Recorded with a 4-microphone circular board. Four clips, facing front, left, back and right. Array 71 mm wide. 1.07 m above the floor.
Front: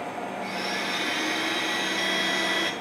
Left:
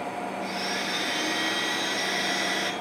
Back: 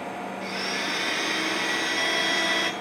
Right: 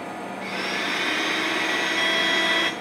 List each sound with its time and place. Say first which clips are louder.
0.4 s a blender: right 2 dB, back 1 dB; 105° right, 1.0 m